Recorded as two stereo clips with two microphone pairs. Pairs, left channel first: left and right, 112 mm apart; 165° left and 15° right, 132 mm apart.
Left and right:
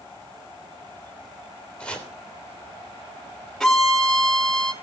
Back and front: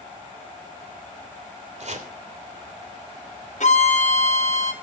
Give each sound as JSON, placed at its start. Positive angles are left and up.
{"t": 1.8, "sound": "chopping", "azimuth_deg": 10, "distance_m": 3.0}
{"t": 3.6, "sound": "a violin", "azimuth_deg": 180, "distance_m": 1.6}